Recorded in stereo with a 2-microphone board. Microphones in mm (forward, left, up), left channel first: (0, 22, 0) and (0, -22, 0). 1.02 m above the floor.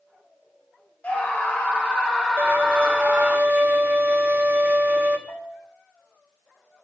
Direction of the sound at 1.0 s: 35° left (ahead or behind).